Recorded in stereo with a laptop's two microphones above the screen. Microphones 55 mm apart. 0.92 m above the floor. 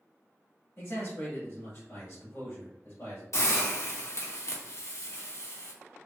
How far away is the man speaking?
About 1.9 m.